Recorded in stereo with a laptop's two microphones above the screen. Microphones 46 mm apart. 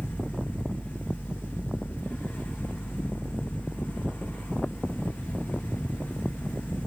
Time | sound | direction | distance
0.0 | a fan | 40° left (ahead or behind) | 3 m